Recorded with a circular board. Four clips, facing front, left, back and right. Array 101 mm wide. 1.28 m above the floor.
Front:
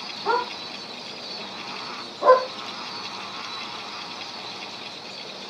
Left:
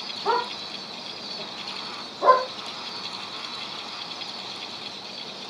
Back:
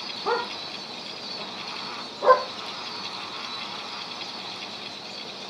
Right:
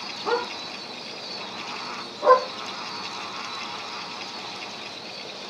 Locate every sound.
0.2 s a dog barking: 55° left, 9 m; by 2.5 s 50° left, 7.5 m